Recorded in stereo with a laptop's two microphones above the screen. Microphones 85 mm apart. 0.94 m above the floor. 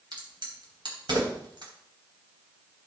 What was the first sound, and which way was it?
A crack, 60° right (ahead or behind).